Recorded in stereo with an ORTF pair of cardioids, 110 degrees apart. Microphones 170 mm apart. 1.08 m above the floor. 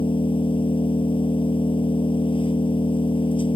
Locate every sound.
0.0 s an engine running: 30° left